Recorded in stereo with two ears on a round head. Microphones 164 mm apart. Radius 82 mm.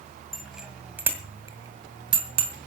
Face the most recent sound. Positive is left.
turn(degrees=-30)  # may be behind; listen again after turning